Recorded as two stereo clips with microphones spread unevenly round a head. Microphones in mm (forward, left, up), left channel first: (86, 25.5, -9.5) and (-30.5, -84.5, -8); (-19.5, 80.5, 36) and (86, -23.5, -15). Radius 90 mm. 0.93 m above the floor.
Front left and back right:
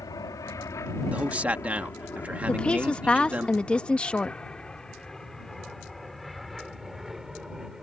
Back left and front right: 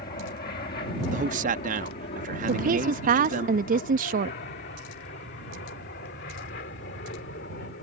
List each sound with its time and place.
0.0 s an aircraft: 110° left; by 7.8 s 135° left
1.1 s a man speaking: 55° right
2.5 s a woman speaking: 40° right